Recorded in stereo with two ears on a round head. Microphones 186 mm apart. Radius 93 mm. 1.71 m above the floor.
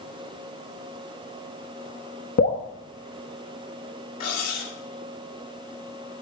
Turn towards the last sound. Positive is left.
turn(degrees=50)  # may be behind; listen again after turning